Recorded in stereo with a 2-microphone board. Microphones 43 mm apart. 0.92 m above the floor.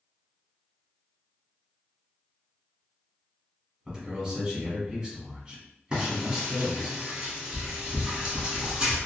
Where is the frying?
15° right (ahead or behind), 1.5 m.